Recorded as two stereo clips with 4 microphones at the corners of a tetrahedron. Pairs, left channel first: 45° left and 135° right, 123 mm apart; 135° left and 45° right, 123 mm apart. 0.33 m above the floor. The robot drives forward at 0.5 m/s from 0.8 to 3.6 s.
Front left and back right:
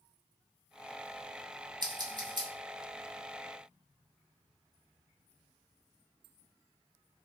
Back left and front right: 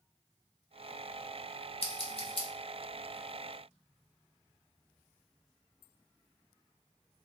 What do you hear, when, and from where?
1.8 s scissors: 170° left, 0.6 m; by 2.5 s 175° left, 0.9 m